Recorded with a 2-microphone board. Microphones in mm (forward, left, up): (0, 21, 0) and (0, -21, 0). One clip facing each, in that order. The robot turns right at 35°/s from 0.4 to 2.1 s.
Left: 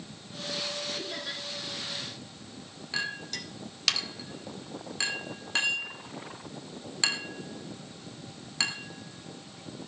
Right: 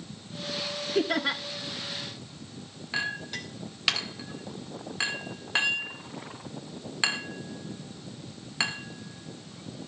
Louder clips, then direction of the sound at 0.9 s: Right 10 dB; 60° right (ahead or behind).